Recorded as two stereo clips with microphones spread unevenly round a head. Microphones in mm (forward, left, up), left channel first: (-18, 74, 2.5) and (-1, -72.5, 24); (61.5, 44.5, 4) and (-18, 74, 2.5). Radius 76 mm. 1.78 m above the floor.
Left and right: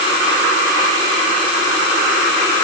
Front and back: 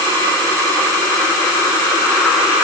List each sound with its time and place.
Only background noise.